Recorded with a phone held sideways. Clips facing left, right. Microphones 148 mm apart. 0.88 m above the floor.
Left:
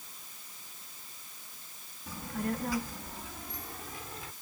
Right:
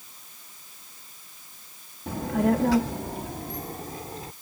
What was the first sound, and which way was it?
A child speaking, 60° right (ahead or behind).